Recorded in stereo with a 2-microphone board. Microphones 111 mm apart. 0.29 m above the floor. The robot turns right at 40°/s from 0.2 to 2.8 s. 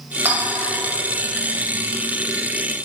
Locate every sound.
0.2 s a clink: 20° right (ahead or behind), 0.8 m; by 0.7 s 10° right (ahead or behind), 0.8 m